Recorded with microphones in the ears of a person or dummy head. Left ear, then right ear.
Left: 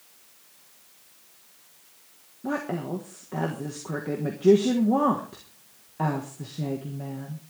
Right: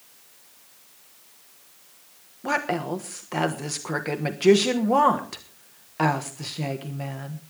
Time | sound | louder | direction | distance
2.4 | a woman speaking | right 5 dB | 60° right (ahead or behind) | 1.3 m